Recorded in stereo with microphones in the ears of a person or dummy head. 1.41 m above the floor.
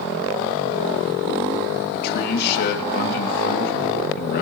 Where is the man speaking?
60° left (ahead or behind), 2.5 m.